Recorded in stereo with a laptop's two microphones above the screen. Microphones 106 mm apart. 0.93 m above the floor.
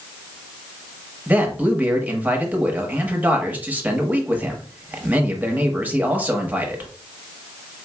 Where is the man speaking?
15° right (ahead or behind), 1.0 m.